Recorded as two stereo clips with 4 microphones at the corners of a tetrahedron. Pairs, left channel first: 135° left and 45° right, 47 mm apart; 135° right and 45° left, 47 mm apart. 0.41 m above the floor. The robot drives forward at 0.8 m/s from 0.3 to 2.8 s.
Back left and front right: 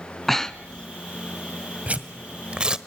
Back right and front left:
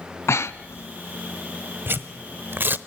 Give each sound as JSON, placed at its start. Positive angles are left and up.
{"t": 0.3, "sound": "breathing", "azimuth_deg": -140, "distance_m": 0.9}
{"t": 1.9, "sound": "tearing paper", "azimuth_deg": 15, "distance_m": 1.6}